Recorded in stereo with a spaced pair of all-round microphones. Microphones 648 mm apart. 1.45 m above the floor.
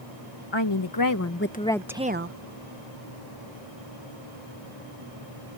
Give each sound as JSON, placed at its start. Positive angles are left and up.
{"t": 0.5, "sound": "a woman speaking", "side_deg": 45}